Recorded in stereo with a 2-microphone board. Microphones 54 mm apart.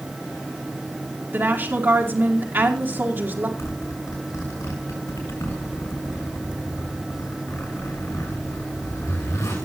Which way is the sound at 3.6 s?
75° left (ahead or behind).